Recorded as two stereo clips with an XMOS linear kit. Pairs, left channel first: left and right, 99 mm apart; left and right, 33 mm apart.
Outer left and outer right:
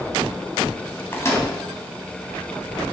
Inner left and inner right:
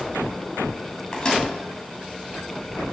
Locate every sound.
1.1 s a microwave: 25° left (ahead or behind), 1.9 m